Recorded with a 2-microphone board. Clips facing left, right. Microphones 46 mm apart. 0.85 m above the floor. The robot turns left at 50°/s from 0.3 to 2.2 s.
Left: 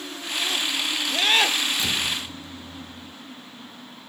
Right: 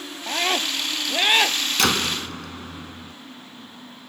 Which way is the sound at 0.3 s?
115° right.